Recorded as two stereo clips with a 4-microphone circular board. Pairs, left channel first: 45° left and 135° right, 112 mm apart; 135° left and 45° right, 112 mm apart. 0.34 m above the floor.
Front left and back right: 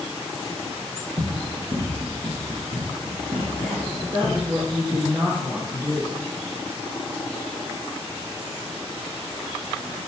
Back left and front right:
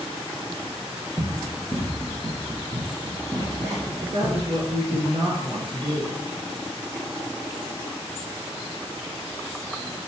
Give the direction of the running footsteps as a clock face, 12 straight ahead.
4 o'clock.